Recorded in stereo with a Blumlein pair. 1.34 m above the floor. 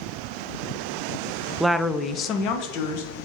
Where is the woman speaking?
5° right, 0.5 m; by 3.1 s 50° left, 1.1 m.